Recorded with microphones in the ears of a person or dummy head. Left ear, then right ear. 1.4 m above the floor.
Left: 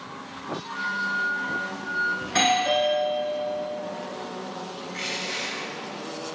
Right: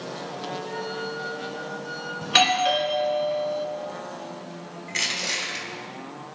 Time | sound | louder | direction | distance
0.6 | a flute | left 4 dB | 75° right (ahead or behind) | 3.5 m
2.2 | a doorbell | right 5 dB | 65° right (ahead or behind) | 1.9 m
4.9 | crushing | right 5 dB | 70° right (ahead or behind) | 4.5 m